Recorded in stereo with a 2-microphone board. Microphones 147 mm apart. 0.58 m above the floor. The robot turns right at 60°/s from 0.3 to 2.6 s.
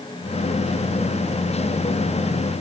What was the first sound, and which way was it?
Only background noise.